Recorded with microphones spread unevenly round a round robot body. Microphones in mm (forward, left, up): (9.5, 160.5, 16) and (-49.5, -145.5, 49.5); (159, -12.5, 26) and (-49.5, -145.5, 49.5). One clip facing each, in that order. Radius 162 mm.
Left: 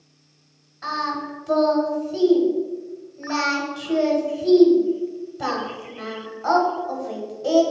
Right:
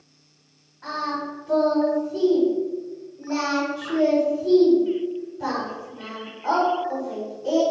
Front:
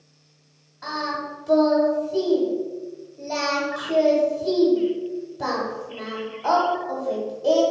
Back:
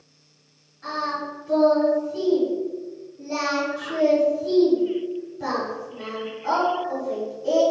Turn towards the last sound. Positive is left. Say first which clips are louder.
# even, front 1 dB
turn(degrees=55)